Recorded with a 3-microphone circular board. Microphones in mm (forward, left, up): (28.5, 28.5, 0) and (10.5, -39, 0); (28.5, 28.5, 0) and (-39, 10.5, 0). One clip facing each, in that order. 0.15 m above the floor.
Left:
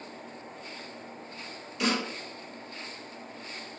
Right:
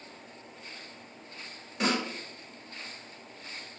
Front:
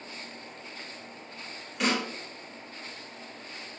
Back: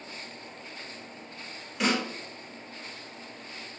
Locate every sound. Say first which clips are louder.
1.8 s a snare drum: even, back 1 dB; 70° right, 1.6 m